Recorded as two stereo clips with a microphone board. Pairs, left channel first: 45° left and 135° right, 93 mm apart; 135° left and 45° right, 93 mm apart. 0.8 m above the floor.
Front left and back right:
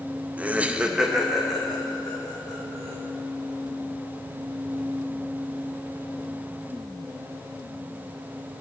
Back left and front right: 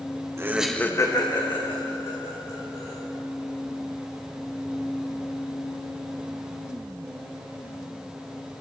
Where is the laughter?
75° right, 0.7 m; by 2.9 s 130° left, 3 m.